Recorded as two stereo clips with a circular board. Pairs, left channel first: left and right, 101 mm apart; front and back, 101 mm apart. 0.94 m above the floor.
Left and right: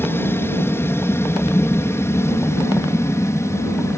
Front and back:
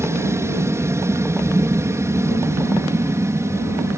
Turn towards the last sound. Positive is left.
turn(degrees=135)